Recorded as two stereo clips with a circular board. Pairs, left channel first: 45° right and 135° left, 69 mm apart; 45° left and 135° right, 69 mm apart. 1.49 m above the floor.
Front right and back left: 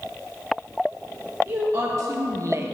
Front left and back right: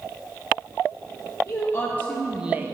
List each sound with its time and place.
1.5 s a woman speaking: 90° left, 1.0 m; by 2.8 s 175° right, 0.6 m